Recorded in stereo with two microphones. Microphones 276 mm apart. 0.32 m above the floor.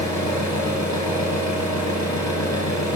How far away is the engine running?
About 1.4 m.